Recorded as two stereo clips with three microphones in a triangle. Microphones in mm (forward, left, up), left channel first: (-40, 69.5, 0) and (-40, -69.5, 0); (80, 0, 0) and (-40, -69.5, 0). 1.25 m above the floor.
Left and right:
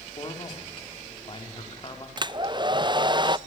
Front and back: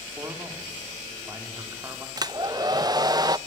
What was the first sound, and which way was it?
A man speaking, 140° left.